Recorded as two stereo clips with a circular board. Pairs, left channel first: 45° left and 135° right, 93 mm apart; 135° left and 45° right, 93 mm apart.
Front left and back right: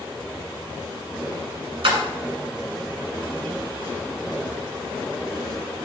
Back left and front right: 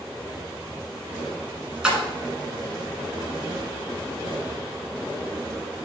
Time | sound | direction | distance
1.8 | a splash | 125° right | 1.4 m